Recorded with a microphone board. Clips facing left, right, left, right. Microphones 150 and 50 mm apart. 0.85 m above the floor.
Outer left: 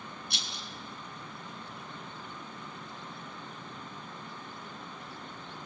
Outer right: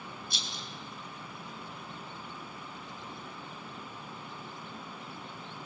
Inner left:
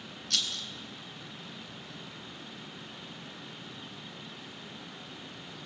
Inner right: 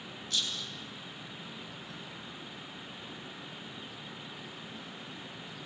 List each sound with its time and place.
0.3 s a rattle: 70° left (ahead or behind), 2.5 m